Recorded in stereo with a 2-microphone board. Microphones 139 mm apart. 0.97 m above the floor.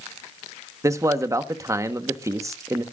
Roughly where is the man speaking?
Right.